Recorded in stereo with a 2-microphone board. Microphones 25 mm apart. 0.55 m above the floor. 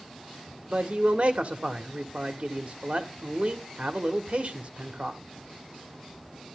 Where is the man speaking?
50° right (ahead or behind), 1.5 m.